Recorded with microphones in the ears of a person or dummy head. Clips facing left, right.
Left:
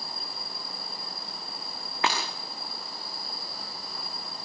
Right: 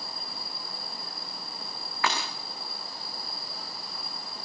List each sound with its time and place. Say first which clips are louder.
2.0 s breaking glass: left 1 dB; 25° left (ahead or behind), 4.5 m